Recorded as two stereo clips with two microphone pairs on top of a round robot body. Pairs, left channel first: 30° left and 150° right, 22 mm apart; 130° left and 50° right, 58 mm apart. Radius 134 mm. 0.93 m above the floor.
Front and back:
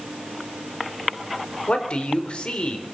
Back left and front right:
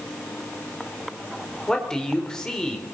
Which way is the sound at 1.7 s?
55° left.